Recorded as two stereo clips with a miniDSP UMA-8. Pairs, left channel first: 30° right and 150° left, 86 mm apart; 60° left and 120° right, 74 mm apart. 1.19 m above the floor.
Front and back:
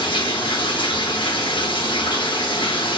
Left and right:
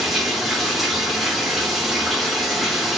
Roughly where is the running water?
Ahead right.